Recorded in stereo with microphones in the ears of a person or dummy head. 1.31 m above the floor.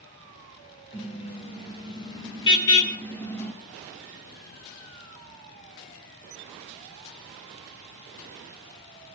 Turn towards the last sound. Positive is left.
turn(degrees=5)  # may be behind; listen again after turning